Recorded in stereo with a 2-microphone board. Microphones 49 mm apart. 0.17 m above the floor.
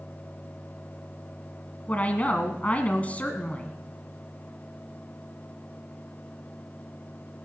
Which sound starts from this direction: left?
A woman speaking, at 1.9 s.